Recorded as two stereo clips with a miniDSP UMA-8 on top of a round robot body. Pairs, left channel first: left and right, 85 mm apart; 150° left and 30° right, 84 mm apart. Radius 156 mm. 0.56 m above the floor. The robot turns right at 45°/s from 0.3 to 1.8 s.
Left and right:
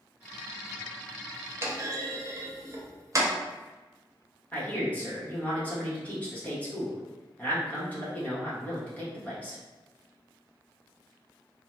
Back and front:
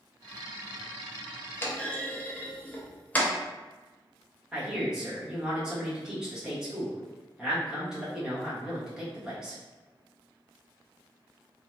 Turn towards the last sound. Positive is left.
turn(degrees=40)